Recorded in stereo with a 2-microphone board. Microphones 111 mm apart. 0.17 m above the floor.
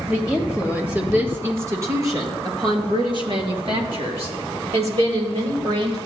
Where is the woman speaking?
5° right (ahead or behind), 3 m; by 6.0 s 70° right (ahead or behind), 3.5 m.